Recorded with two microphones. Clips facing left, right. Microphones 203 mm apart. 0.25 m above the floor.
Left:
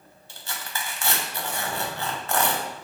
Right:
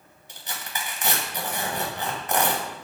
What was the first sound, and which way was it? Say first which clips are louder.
Tearing paper: even; 20° right (ahead or behind).